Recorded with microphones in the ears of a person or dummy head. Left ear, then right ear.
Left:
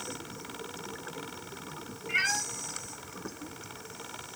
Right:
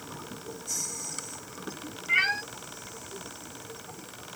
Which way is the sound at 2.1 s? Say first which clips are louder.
Right 4 dB; 20° right (ahead or behind).